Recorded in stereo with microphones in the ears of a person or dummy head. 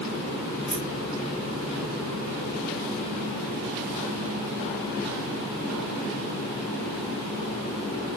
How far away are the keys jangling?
About 3 m.